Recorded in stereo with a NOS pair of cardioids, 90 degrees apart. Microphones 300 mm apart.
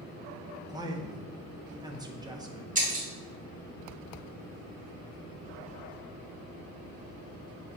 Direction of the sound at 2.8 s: 25° right.